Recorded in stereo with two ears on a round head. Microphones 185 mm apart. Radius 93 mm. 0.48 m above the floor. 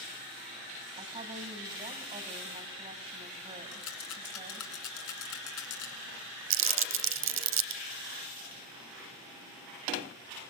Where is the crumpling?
65° right (ahead or behind), 0.6 m.